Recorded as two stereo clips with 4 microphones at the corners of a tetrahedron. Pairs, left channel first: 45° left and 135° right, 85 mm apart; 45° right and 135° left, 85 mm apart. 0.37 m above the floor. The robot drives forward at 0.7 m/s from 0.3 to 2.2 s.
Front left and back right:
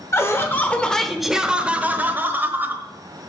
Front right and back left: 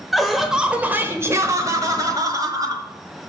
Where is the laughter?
50° left, 0.9 m; by 2.8 s 165° left, 1.3 m.